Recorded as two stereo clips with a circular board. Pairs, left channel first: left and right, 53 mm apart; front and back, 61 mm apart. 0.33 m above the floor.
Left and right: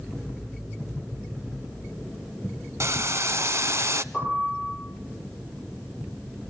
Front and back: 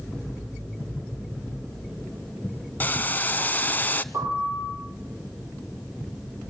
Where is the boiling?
60° right, 0.8 m.